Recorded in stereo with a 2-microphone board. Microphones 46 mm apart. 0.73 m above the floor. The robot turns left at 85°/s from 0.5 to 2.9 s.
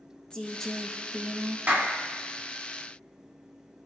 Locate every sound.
0.3 s a woman speaking: 25° left, 1.1 m; by 1.6 s 70° right, 1.1 m
1.7 s a clap: 45° right (ahead or behind), 2 m; by 1.9 s 65° right (ahead or behind), 2 m